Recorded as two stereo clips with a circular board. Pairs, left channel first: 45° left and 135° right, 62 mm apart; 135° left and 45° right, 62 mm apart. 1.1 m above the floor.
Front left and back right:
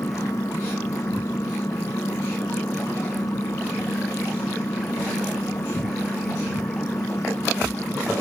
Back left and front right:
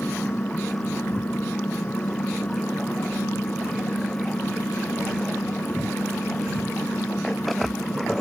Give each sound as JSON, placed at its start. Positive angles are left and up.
{"t": 0.0, "sound": "an engine running", "azimuth_deg": 70}